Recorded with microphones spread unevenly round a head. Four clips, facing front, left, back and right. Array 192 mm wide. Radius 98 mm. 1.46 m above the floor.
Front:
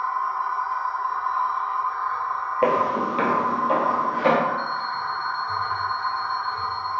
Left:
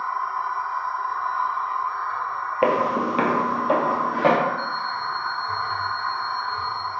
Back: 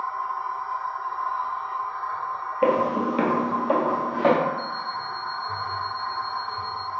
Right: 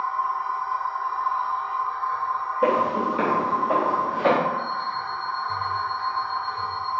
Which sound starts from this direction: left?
Footsteps, at 2.6 s.